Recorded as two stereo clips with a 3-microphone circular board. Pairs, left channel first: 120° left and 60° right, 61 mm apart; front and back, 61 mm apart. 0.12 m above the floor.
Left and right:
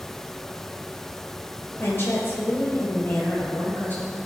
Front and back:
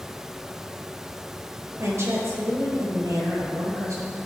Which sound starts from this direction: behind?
A woman speaking, at 1.8 s.